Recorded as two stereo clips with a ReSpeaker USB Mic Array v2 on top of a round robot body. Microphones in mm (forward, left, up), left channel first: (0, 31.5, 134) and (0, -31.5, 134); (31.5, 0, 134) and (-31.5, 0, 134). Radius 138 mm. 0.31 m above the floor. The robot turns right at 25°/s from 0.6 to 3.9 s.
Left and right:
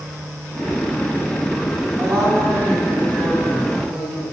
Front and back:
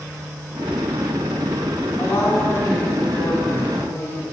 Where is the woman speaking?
55° right, 2 m; by 4.2 s 5° right, 2 m.